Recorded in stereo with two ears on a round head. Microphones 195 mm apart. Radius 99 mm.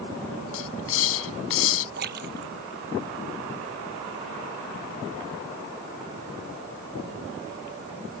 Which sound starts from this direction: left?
A hiss, at 0.5 s.